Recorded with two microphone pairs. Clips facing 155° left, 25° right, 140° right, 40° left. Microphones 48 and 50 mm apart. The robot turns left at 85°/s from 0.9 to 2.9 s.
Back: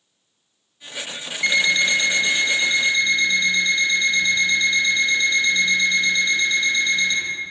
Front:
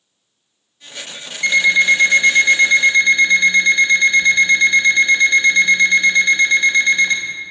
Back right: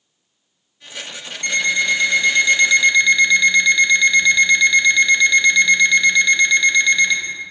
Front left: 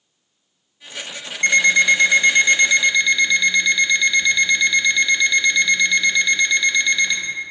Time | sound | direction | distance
1.4 | an alarm clock | 75° left | 0.7 m